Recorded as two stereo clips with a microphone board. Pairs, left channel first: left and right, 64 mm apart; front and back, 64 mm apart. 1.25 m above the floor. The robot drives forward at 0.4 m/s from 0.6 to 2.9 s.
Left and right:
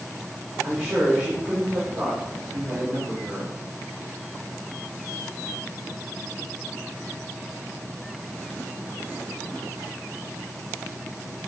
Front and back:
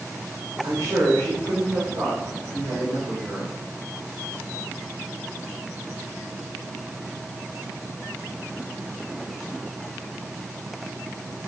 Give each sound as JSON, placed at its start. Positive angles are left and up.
{"t": 0.6, "sound": "a man speaking", "azimuth_deg": -145, "distance_m": 2.0}